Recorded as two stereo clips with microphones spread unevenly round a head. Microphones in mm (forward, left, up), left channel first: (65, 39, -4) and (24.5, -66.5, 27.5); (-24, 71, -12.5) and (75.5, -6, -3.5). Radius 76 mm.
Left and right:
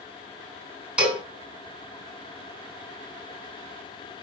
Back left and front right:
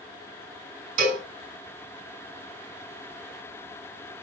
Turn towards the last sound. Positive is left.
turn(degrees=-35)